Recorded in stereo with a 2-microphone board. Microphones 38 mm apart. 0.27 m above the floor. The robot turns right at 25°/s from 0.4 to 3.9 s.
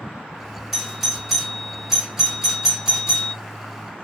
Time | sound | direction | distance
0.7 | a doorbell | centre (ahead or behind) | 1.7 m